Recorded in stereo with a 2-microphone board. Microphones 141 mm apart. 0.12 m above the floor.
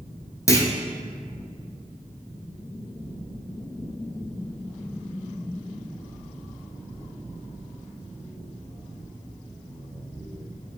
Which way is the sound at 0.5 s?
25° left (ahead or behind).